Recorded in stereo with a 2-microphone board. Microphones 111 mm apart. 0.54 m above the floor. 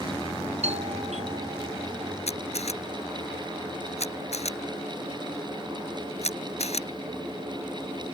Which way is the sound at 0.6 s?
75° right (ahead or behind).